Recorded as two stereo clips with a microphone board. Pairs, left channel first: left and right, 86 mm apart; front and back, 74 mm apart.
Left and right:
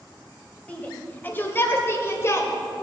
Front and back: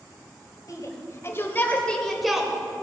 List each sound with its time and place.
0.7 s a shout: 20° left, 2.0 m; by 2.5 s 110° left, 1.4 m